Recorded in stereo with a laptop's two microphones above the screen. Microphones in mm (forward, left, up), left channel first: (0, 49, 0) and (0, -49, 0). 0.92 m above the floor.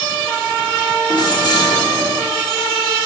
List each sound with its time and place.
1.1 s keys jangling: 45° left (ahead or behind), 1.3 m